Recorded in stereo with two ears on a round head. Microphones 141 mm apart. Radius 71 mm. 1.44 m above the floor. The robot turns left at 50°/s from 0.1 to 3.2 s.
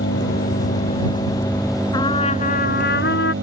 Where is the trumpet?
155° left; by 3.3 s 90° left.